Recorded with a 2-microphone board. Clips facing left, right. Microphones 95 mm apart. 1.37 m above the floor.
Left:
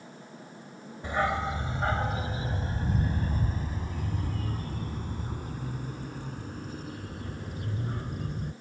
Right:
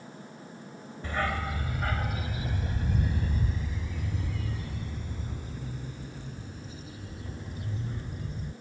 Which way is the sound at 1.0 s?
20° left (ahead or behind).